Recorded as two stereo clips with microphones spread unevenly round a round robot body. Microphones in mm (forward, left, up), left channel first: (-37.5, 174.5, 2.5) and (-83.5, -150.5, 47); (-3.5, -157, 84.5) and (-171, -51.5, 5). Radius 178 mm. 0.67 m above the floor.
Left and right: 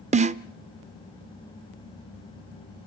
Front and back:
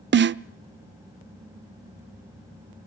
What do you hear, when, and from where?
0.1 s a snare drum: 165° right, 0.5 m